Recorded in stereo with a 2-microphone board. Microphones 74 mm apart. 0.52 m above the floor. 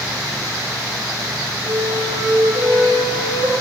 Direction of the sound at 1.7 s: 85° right.